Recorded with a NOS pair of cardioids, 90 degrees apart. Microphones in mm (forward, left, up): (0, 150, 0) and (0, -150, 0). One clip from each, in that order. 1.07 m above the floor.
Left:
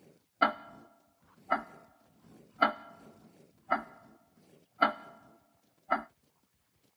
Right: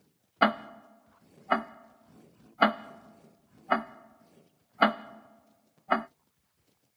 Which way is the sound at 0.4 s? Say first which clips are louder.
Right 3 dB; 25° right.